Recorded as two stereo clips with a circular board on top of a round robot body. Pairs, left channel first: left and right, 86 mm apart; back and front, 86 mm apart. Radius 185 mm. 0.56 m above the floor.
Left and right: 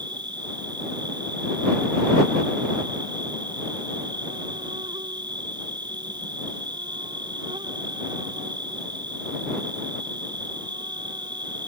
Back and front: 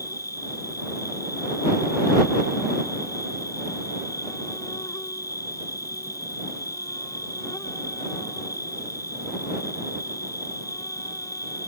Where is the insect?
130° right.